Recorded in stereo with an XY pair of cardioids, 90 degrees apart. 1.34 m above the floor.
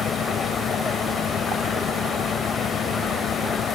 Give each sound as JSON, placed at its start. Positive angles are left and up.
{"t": 0.0, "sound": "a fan", "azimuth_deg": 70}